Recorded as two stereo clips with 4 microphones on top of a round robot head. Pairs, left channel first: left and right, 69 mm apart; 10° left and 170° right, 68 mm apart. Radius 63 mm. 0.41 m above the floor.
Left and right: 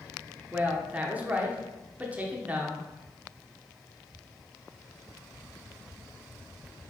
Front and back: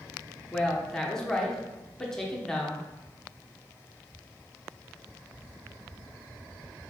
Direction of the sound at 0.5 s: 65° right.